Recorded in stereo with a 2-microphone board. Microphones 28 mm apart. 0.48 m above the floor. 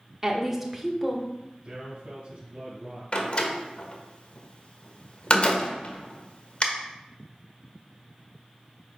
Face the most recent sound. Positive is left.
turn(degrees=40)  # may be behind; listen again after turning